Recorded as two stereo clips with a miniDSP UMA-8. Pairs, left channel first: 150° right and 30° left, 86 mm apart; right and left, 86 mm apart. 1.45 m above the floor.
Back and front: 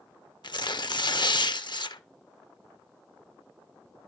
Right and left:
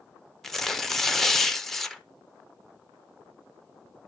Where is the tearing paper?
175° right, 0.5 m.